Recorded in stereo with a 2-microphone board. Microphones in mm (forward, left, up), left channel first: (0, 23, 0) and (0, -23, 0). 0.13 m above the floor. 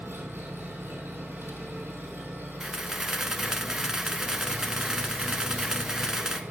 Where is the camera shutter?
15° right (ahead or behind), 0.8 m.